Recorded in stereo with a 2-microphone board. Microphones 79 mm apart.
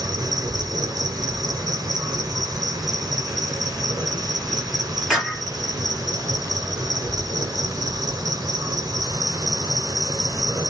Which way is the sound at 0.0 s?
50° right (ahead or behind).